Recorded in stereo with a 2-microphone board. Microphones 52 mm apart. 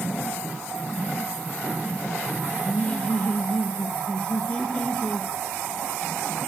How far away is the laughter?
About 0.9 m.